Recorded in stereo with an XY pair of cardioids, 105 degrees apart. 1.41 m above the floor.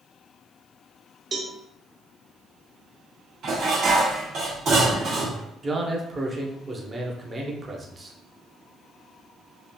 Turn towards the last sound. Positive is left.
turn(degrees=-30)